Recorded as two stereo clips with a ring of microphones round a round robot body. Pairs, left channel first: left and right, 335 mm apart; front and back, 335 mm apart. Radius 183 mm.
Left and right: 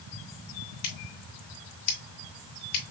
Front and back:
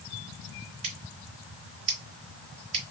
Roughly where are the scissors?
Left.